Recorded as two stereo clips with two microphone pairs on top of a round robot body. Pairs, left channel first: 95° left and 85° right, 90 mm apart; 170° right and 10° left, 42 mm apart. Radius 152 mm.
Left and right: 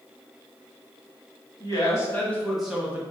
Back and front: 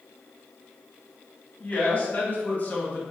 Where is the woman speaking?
135° left, 1.9 m; by 3.0 s 125° right, 1.4 m.